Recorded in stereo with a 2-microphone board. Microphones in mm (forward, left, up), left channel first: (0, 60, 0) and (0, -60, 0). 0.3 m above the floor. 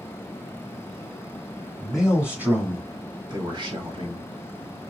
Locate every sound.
1.8 s a man speaking: centre (ahead or behind), 1.0 m; by 4.2 s 50° right (ahead or behind), 1.6 m